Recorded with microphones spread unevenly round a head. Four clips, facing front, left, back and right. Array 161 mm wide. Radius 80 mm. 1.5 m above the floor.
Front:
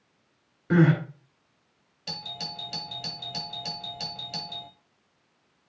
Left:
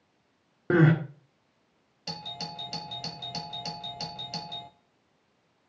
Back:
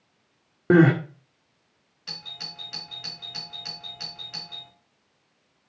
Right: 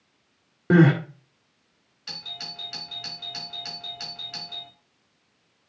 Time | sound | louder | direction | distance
0.7 | crying | right 4 dB, back 5 dB | 170° right | 1.8 m
2.1 | a doorbell | left 5 dB, front 6 dB | 65° left | 1.1 m